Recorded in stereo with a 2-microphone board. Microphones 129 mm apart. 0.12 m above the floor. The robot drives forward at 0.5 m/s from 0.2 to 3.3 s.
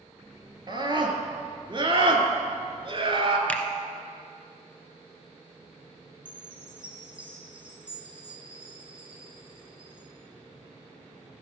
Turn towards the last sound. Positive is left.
turn(degrees=-10)  # may be behind; listen again after turning